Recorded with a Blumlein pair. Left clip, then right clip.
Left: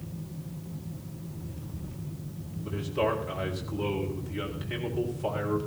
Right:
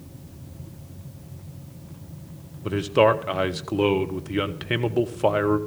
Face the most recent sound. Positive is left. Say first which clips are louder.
# right 10 dB
turn(degrees=-35)